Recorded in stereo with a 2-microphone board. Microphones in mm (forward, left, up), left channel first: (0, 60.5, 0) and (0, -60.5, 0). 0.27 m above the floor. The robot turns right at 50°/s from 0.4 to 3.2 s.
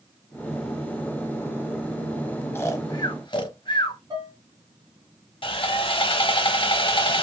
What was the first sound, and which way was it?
Snoring, 20° left (ahead or behind).